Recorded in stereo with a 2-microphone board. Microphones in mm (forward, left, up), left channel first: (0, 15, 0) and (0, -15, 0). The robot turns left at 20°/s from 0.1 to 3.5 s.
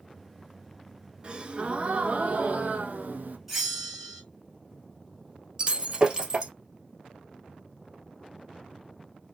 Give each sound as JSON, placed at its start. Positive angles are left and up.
{"t": 1.2, "sound": "a gasp", "azimuth_deg": -30, "distance_m": 0.8}
{"t": 3.5, "sound": "a bell", "side_deg": -5, "distance_m": 1.5}
{"t": 5.6, "sound": "breaking glass", "side_deg": -30, "distance_m": 1.3}